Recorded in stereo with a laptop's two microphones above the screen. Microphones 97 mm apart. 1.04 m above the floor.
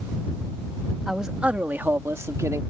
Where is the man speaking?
5° right (ahead or behind); by 2.6 s 35° right (ahead or behind).